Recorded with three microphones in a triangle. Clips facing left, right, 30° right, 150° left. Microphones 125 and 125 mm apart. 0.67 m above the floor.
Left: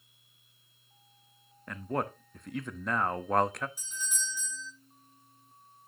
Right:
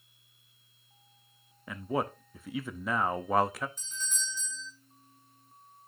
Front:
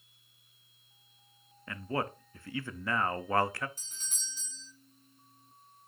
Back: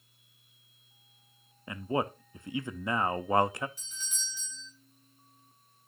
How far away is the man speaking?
About 0.5 m.